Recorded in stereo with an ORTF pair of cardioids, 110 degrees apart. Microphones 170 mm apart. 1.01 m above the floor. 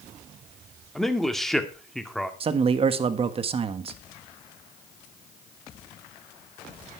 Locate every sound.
0.9 s a man speaking: straight ahead, 1.9 m
2.4 s a man speaking: 35° right, 1.4 m